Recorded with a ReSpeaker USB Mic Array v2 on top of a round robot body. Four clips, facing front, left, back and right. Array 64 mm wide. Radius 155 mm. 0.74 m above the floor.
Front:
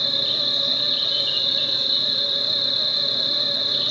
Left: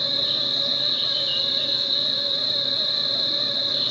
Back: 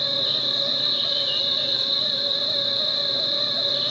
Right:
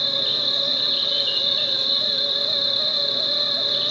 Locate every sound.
0.0 s an insect: 60° right, 0.8 m